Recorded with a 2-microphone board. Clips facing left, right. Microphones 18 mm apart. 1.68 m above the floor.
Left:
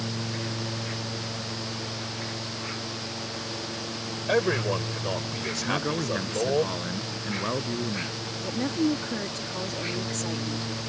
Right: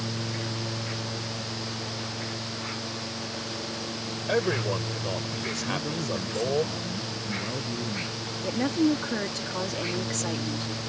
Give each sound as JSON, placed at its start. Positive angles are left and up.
{"t": 4.3, "sound": "a man speaking", "side_deg": 10}
{"t": 5.6, "sound": "a man speaking", "side_deg": 40}
{"t": 8.4, "sound": "a woman speaking", "side_deg": -15}